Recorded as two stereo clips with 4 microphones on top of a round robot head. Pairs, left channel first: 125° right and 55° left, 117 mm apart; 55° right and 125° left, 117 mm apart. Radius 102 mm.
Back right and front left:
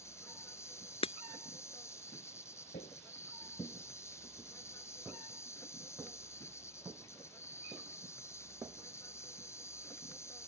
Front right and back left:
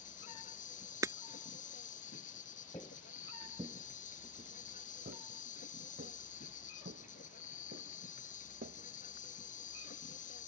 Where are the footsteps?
110° right; by 9.3 s 125° left.